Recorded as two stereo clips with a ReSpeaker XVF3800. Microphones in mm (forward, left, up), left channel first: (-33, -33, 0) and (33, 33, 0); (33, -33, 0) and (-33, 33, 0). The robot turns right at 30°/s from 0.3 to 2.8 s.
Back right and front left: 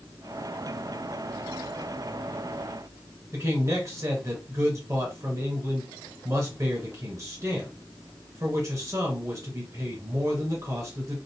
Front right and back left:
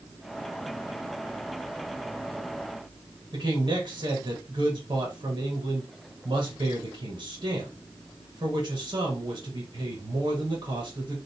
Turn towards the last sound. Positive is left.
turn(degrees=100)